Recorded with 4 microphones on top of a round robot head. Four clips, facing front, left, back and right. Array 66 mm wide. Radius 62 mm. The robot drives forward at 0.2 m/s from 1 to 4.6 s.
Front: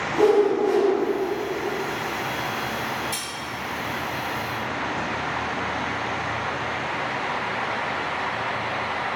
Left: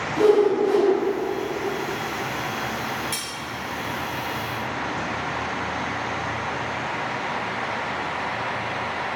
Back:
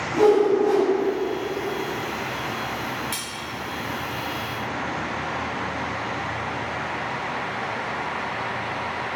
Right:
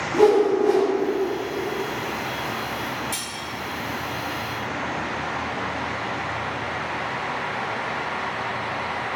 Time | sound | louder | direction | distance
0.1 | a whoosh | right 1 dB, back 1 dB | 95° right | 0.8 m
3.1 | cutlery clinking | even, even | 150° left | 1.0 m